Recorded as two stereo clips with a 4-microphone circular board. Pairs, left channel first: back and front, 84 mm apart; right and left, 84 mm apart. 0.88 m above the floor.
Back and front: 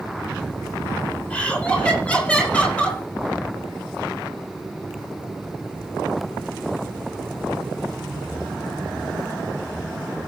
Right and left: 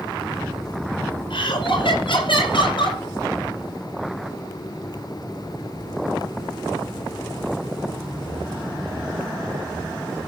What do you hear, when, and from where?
1.3 s laughter: 105° right, 9.5 m